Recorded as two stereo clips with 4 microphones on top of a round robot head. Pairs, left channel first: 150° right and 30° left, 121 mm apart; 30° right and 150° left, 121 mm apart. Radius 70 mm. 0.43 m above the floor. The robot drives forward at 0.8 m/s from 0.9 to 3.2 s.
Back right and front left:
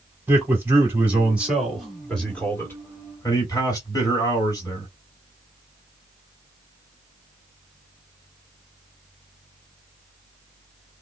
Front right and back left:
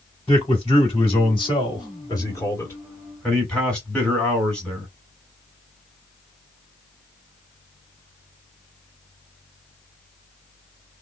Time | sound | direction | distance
0.3 | a man speaking | 35° right | 2.5 m